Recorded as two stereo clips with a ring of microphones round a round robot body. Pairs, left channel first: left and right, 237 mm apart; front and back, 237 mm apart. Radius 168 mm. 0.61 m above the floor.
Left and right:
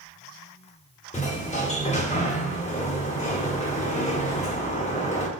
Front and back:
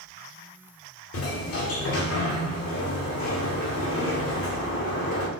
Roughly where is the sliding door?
Ahead left.